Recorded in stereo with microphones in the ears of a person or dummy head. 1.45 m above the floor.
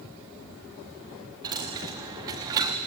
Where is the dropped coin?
15° right (ahead or behind), 0.9 m.